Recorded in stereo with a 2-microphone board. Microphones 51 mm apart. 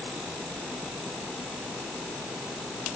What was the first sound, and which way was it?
Only background noise.